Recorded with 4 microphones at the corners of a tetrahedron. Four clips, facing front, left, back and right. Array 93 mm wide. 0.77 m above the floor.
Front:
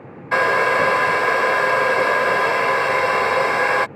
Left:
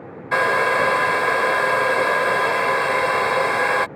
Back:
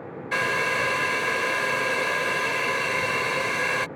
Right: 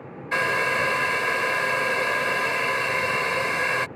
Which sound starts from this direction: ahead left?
A hair dryer, at 0.3 s.